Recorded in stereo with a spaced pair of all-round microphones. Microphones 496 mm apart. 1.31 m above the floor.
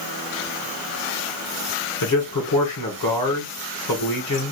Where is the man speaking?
40° left (ahead or behind), 1.6 m.